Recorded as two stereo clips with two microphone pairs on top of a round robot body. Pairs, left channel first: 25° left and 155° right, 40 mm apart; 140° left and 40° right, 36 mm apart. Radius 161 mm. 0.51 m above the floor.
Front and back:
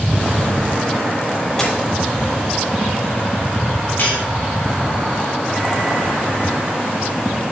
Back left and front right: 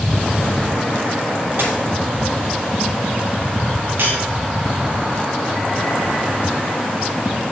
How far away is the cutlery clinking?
About 4.5 m.